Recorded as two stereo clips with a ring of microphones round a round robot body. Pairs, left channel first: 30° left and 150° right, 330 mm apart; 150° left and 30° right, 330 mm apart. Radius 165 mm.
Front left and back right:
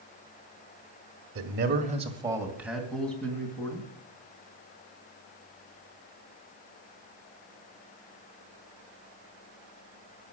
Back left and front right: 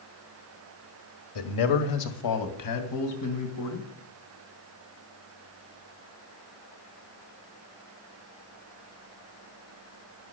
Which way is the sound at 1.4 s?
165° left.